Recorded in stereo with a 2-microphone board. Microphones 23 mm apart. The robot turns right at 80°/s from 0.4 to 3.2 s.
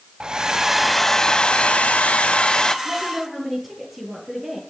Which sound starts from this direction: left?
A woman speaking, at 2.9 s.